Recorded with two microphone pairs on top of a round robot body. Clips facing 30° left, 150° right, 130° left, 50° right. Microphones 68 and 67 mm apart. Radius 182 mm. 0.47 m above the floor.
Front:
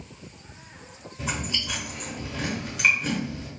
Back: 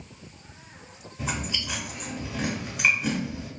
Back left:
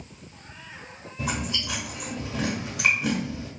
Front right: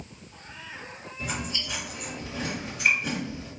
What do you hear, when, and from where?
1.2 s chewing: 125° left, 0.9 m